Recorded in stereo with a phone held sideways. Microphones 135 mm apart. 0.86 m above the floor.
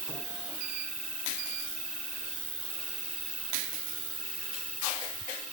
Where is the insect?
65° right (ahead or behind).